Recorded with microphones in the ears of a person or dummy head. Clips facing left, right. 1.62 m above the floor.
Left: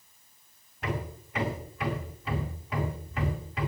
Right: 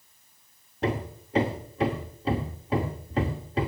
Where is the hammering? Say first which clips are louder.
Right 6 dB; 35° right (ahead or behind), 1.9 m.